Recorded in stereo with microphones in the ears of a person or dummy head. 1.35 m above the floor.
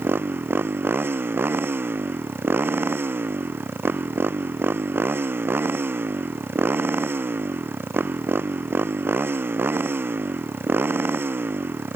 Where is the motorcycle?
10° right (ahead or behind).